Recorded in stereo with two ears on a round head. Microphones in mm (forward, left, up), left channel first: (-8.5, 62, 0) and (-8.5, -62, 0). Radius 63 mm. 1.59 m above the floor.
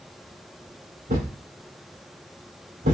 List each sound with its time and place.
1.1 s a thud: 55° right (ahead or behind), 3.5 m